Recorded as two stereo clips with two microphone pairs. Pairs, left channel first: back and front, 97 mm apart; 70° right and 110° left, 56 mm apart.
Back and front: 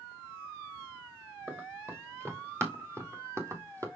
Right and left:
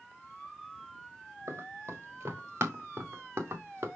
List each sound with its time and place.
1.5 s running footsteps: 65° left, 4 m; by 3.9 s 55° left, 3 m